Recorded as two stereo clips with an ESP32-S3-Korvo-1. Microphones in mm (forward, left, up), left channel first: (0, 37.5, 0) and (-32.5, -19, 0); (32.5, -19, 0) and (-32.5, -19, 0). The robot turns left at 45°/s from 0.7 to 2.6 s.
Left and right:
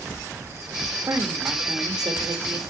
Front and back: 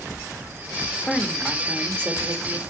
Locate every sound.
1.1 s a woman speaking: 80° right, 1.2 m; by 2.6 s 150° right, 1.2 m